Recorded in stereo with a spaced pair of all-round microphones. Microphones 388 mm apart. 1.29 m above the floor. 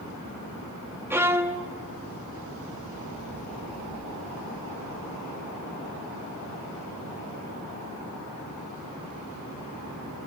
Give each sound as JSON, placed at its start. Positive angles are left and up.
{"t": 1.1, "sound": "a violin", "side_deg": -5, "distance_m": 0.8}